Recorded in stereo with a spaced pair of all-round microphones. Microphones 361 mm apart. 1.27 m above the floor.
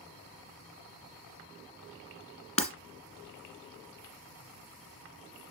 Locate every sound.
2.6 s breaking glass: 20° left (ahead or behind), 1.4 m